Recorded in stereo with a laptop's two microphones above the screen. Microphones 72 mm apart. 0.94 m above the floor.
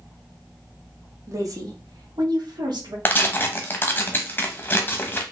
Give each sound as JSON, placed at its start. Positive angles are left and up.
{"t": 1.3, "sound": "a woman speaking", "side_deg": -45, "distance_m": 1.1}
{"t": 3.0, "sound": "tearing paper", "side_deg": 30, "distance_m": 0.8}